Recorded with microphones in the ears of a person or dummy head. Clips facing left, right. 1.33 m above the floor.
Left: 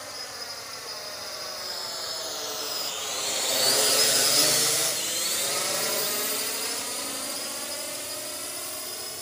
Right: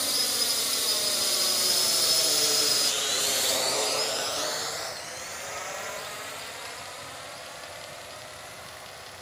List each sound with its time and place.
0.0 s a drone: 55° right (ahead or behind); by 9.2 s 60° left (ahead or behind)